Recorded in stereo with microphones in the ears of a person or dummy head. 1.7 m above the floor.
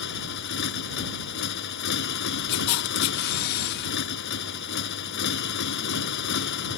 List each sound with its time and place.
0.0 s a motorcycle: 75° left (ahead or behind)
2.5 s a camera shutter: 50° left (ahead or behind)